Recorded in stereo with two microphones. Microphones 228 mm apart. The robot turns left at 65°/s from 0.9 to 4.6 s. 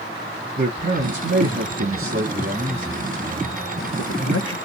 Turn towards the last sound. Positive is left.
turn(degrees=80)